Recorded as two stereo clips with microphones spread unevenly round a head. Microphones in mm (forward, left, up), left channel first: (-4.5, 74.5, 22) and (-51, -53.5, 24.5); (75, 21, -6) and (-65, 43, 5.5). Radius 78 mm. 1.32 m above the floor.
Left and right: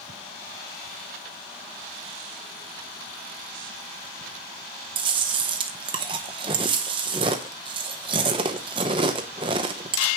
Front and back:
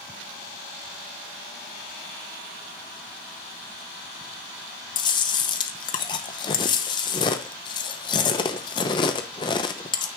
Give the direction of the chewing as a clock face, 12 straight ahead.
2 o'clock.